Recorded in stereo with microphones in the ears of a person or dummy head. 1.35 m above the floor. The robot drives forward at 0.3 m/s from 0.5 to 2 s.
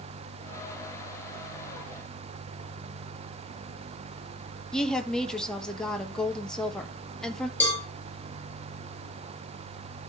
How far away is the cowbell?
About 5.5 m.